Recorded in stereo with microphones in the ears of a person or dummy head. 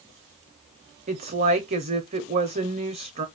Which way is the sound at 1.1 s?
40° right (ahead or behind).